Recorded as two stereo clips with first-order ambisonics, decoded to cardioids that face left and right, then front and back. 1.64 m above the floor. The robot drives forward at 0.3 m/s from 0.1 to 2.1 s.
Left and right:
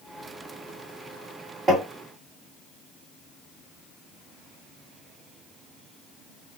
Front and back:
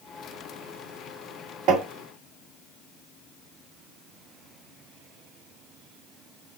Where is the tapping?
155° right, 1.4 m.